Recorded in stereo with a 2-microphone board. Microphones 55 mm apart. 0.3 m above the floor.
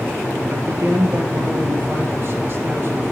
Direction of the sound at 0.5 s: 50° right (ahead or behind).